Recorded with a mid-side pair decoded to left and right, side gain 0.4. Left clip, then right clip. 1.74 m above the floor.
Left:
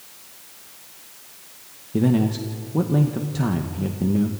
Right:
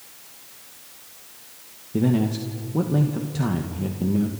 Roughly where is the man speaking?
Ahead.